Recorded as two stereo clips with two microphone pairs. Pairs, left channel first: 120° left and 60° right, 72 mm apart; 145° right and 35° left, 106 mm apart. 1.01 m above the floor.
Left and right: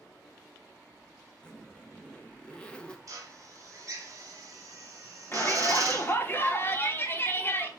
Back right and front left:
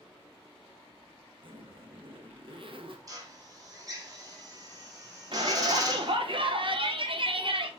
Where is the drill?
20° right, 1.0 m.